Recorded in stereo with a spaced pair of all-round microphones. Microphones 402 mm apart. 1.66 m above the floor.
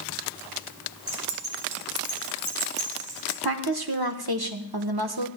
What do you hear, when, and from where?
1.1 s keys jangling: 70° right (ahead or behind), 3.5 m
3.4 s a woman speaking: 65° right (ahead or behind), 1.2 m